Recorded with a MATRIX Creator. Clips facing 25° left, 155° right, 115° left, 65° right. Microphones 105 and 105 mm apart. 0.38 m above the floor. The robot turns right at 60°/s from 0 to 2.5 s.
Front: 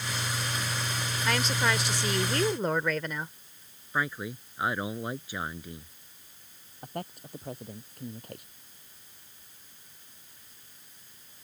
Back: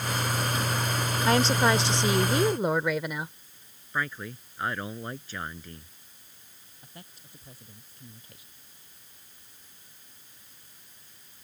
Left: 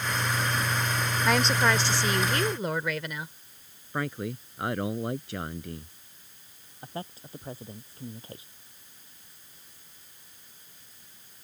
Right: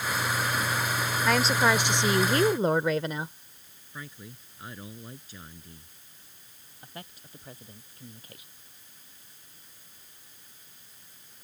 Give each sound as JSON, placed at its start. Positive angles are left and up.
{"t": 1.2, "sound": "a woman speaking", "azimuth_deg": -165}
{"t": 3.9, "sound": "a man speaking", "azimuth_deg": 100}
{"t": 6.8, "sound": "a man speaking", "azimuth_deg": 55}